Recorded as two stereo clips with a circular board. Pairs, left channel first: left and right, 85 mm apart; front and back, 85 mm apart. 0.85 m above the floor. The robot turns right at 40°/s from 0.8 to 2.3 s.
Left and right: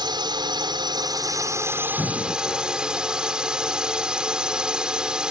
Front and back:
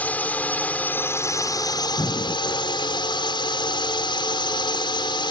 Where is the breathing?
35° left; by 2.8 s 45° left.